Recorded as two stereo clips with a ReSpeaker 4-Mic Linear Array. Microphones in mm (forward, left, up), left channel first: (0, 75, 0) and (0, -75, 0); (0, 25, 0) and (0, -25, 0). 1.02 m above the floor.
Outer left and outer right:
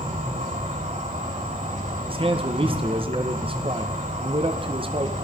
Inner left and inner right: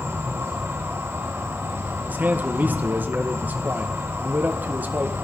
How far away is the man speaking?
About 0.8 m.